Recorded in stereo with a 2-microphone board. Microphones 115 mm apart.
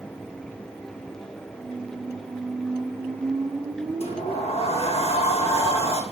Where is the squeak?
35° right (ahead or behind), 2.5 m.